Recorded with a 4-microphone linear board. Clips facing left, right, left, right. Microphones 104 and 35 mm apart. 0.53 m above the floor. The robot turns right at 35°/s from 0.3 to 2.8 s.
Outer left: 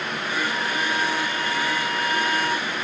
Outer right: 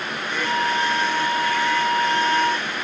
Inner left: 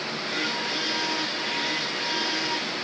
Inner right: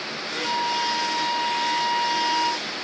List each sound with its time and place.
0.3 s a flute: 105° right, 1.1 m; by 2.6 s 25° right, 1.1 m